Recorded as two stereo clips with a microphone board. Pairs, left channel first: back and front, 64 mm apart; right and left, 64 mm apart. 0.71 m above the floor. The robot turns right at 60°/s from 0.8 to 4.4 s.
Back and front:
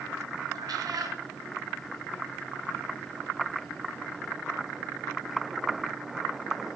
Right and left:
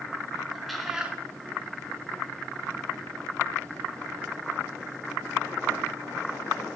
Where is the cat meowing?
Straight ahead, 2 m; by 1.2 s 20° left, 2 m.